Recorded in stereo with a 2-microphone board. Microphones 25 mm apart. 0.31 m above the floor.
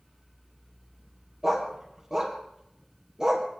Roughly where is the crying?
I don't hear crying.